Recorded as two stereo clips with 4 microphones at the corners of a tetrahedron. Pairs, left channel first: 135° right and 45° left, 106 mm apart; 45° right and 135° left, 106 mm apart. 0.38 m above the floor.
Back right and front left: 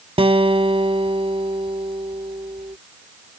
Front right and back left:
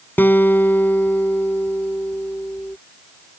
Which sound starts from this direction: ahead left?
A guitar, at 0.2 s.